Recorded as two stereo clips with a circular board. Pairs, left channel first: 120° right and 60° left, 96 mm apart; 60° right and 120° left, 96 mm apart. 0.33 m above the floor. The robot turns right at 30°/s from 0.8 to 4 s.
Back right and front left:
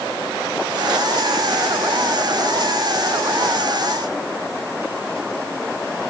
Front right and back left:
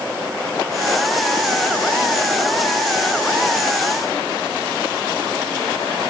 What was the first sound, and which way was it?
Only background noise.